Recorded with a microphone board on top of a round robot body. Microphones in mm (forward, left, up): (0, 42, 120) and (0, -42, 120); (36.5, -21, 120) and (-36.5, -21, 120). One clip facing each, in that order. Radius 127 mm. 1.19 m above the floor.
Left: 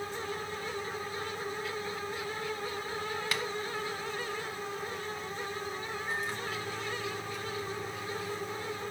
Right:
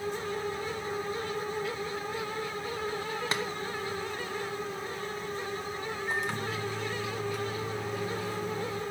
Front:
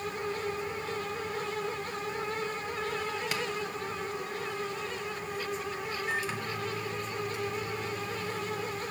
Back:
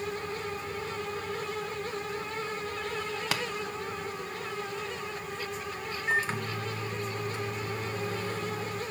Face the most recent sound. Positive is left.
turn(degrees=-120)